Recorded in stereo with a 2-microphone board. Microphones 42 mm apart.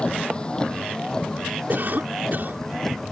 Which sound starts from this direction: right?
A cough, at 1.7 s.